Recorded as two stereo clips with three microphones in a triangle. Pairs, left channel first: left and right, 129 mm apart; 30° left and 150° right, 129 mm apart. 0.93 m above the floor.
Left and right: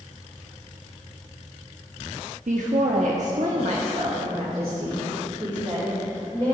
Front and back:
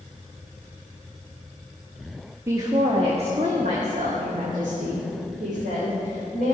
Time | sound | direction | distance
2.5 | a woman speaking | 80° right | 1.0 m